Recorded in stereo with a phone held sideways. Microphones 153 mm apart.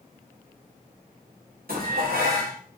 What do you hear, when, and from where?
1.7 s dishes clattering: 80° right, 1.1 m